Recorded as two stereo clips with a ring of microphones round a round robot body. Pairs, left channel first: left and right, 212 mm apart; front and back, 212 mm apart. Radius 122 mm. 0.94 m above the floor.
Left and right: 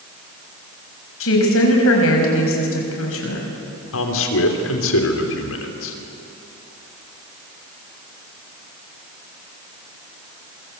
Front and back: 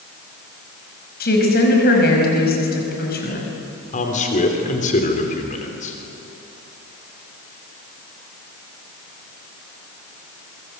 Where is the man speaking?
60° left, 3 m.